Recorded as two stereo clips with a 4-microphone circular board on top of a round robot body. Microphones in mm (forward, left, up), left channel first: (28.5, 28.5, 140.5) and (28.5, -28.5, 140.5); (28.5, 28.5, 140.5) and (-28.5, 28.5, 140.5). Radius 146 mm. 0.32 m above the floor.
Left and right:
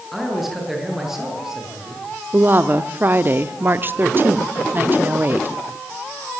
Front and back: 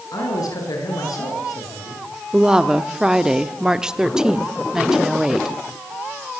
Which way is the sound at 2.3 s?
110° right.